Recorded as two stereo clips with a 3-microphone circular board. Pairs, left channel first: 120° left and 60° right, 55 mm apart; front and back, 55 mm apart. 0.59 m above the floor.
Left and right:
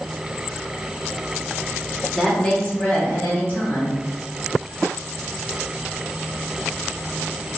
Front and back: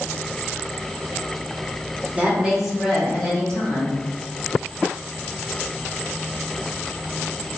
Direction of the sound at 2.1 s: 165° right.